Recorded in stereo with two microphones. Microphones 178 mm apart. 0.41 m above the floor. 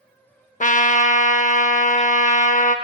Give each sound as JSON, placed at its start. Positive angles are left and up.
{"t": 0.6, "sound": "a trumpet", "side_deg": 45, "distance_m": 0.6}